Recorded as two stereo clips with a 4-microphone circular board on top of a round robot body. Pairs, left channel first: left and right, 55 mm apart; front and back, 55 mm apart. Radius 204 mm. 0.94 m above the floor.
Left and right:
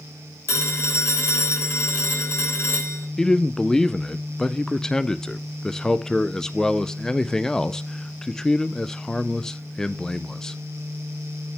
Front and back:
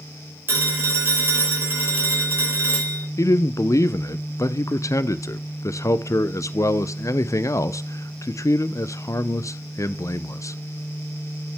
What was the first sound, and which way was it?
A phone ringing, 135° left.